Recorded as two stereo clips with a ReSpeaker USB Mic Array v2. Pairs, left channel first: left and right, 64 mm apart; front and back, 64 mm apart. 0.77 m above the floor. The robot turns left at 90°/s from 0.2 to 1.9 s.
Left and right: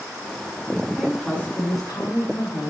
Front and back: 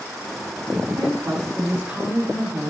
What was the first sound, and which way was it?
A woman speaking, 160° right.